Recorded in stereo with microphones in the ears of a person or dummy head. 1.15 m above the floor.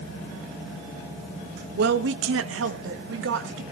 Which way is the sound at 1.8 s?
50° right (ahead or behind).